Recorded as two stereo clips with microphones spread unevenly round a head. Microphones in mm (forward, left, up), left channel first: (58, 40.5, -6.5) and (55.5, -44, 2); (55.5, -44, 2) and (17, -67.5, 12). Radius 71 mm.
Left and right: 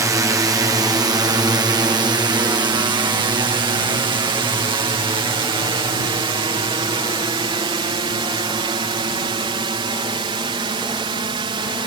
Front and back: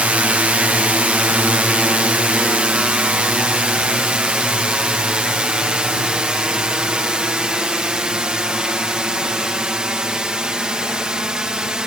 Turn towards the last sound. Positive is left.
turn(degrees=-75)